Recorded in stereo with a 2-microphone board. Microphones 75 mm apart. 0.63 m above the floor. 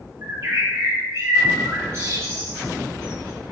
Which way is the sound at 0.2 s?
40° right (ahead or behind).